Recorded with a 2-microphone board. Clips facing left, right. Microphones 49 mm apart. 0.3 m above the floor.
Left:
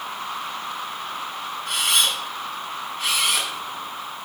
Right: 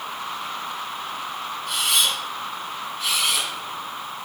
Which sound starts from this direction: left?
A camera shutter, at 1.7 s.